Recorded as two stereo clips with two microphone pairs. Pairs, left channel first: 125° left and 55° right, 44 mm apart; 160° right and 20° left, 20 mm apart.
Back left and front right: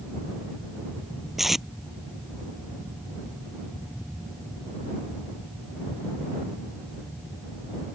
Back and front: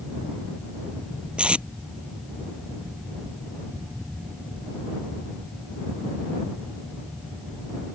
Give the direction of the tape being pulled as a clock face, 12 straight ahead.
11 o'clock.